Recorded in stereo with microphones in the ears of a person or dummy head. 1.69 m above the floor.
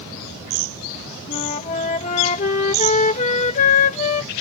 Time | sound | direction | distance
1.3 | a flute | 35° left (ahead or behind) | ?